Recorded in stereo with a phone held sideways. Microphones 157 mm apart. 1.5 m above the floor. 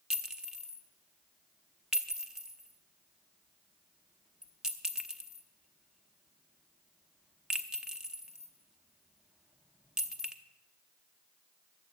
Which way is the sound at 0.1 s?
5° right (ahead or behind).